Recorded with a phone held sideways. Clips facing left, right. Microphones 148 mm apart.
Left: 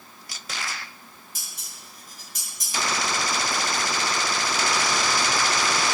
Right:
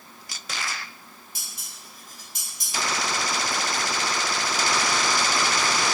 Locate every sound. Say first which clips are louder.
1.4 s dishes clattering: even; 45° left (ahead or behind), 5.5 m